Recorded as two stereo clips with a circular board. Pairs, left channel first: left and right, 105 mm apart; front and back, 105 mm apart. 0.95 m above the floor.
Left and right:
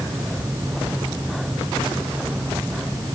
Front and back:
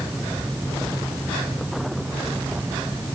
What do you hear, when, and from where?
Only background noise.